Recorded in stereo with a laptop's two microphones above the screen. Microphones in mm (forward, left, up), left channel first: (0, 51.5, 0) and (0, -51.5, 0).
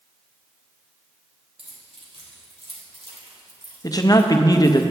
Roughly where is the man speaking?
Left.